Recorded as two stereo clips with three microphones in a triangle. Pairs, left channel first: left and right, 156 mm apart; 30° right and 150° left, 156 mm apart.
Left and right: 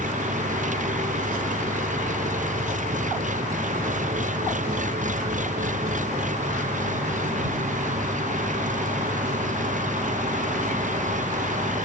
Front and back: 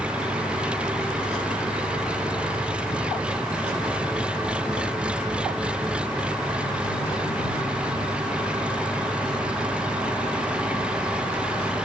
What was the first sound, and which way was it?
An engine running, 125° right.